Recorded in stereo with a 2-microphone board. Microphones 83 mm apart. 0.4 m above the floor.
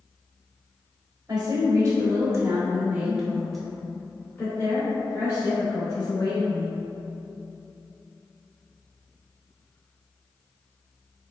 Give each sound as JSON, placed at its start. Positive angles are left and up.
{"t": 1.3, "sound": "a woman speaking", "side_deg": -50, "distance_m": 1.4}